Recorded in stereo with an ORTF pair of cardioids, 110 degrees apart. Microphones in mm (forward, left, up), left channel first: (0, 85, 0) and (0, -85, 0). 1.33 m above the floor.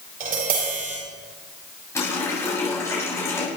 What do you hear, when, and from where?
0.2 s tapping: 60° right, 7.5 m
1.9 s a running tap: 15° left, 6 m